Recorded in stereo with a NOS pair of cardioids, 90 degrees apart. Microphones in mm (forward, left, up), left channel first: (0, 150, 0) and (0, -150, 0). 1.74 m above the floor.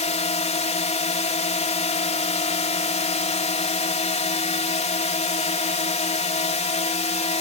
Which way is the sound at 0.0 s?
20° left.